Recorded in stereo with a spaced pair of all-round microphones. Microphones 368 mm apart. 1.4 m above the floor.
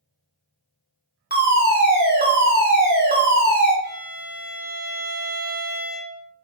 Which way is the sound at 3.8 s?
25° left (ahead or behind).